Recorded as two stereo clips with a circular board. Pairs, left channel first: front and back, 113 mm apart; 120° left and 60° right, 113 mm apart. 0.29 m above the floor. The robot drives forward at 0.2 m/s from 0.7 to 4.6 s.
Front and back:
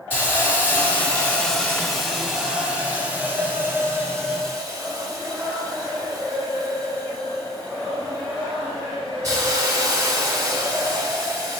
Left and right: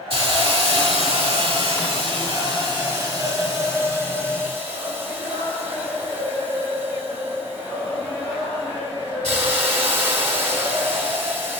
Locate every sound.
0.1 s a hiss: 70° right, 0.9 m; by 11.6 s 125° right, 1.0 m